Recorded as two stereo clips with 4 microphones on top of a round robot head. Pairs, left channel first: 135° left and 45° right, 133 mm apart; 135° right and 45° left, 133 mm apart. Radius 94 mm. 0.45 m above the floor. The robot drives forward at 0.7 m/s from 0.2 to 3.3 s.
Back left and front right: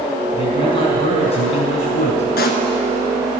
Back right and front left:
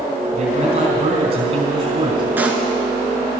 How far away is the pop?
About 1.1 m.